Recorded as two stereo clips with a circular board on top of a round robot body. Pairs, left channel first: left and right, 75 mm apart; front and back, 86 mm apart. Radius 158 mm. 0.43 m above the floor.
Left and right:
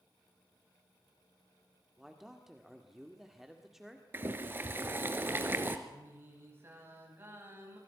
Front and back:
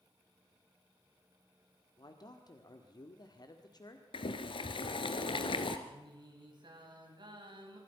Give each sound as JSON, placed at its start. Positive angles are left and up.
{"t": 2.0, "sound": "a man speaking", "azimuth_deg": -5, "distance_m": 2.0}
{"t": 4.1, "sound": "boiling", "azimuth_deg": -30, "distance_m": 1.4}
{"t": 5.9, "sound": "singing", "azimuth_deg": -150, "distance_m": 4.5}